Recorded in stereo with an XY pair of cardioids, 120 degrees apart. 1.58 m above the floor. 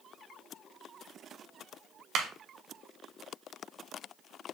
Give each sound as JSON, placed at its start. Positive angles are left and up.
{"t": 2.1, "sound": "a clap", "azimuth_deg": -65, "distance_m": 1.2}